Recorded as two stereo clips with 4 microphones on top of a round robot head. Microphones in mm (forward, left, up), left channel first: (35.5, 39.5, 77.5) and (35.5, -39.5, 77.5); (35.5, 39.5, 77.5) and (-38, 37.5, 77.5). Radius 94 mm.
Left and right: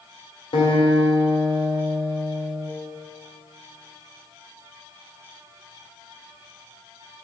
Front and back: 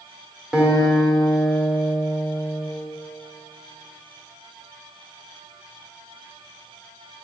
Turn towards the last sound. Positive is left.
turn(degrees=100)